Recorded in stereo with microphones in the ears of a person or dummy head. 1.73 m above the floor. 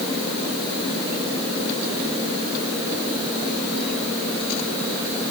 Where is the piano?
No piano in this recording.